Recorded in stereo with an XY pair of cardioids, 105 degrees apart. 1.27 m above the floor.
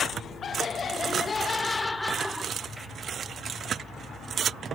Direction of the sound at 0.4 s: 50° left.